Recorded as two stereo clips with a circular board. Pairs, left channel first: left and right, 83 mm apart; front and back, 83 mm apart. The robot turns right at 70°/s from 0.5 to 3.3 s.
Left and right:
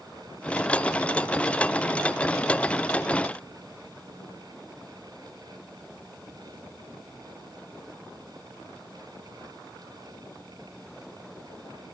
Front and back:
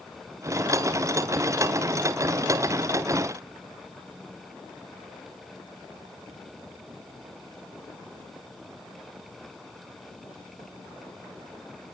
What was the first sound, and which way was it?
Only background noise.